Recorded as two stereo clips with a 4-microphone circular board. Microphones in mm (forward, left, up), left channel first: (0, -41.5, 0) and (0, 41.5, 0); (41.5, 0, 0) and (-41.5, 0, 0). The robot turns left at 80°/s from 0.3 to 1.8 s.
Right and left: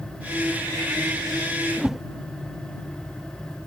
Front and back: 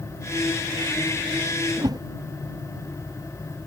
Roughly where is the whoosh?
Behind.